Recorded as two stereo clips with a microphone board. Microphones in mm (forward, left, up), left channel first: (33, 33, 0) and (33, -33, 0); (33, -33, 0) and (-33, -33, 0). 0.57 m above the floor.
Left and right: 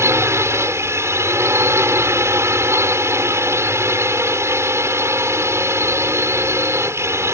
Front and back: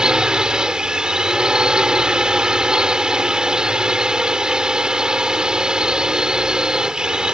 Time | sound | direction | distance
0.0 | a drone | 105° right | ?